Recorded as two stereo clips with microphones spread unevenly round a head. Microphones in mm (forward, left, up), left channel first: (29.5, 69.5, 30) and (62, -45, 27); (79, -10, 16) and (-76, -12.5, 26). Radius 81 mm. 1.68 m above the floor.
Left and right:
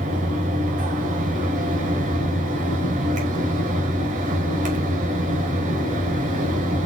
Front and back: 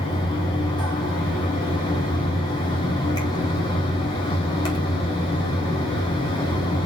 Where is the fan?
65° right, 3 m.